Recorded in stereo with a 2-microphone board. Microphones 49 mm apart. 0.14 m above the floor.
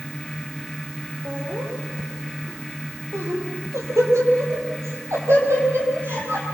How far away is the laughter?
About 4.5 m.